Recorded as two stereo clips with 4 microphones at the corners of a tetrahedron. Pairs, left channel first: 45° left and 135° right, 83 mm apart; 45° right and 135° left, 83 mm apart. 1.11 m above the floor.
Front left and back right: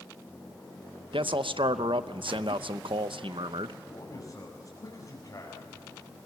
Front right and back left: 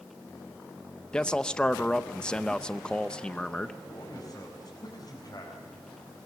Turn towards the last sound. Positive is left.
turn(degrees=0)